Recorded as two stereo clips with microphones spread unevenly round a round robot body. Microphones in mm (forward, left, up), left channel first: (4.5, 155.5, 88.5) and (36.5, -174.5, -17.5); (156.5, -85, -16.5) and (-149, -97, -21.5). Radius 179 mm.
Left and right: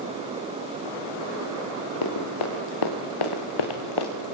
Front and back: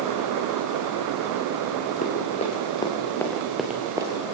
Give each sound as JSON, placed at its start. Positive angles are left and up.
{"t": 2.0, "sound": "running footsteps", "azimuth_deg": 70, "distance_m": 5.5}